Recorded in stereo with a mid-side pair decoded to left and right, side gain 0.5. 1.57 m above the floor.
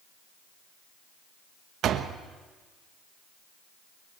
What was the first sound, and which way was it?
A door slam, 60° right.